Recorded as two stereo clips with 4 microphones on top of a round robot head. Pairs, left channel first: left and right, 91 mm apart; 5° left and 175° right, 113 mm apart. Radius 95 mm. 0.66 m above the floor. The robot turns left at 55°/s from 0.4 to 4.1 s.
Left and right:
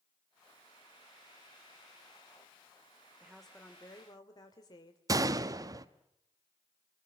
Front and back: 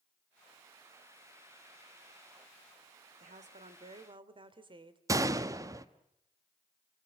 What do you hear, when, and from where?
3.2 s a woman speaking: 170° right, 2 m; by 5.0 s 140° left, 2 m
5.1 s a gunshot: 125° right, 1.1 m